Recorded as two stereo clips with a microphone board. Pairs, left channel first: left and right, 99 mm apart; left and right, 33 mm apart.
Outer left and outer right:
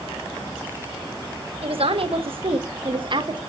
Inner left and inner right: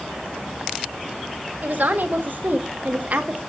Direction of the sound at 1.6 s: 70° right (ahead or behind).